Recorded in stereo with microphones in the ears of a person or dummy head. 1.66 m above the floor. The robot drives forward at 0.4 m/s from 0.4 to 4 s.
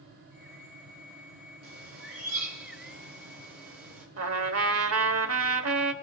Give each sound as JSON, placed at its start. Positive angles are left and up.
{"t": 1.6, "sound": "a bird", "side_deg": -75, "distance_m": 2.5}
{"t": 4.2, "sound": "a trumpet", "side_deg": -80, "distance_m": 1.2}